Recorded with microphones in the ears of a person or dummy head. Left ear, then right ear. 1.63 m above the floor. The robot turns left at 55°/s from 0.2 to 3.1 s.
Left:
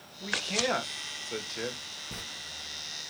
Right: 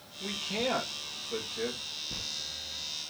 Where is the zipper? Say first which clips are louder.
Right 1 dB; 60° left (ahead or behind), 1.4 m.